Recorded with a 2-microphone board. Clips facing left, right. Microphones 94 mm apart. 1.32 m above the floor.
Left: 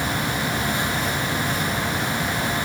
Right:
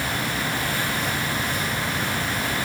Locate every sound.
Only background noise.